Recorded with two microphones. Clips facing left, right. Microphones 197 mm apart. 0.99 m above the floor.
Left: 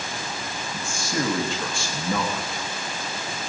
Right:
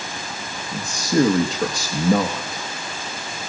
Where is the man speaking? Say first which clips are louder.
Right 10 dB; 40° right (ahead or behind), 1.3 m.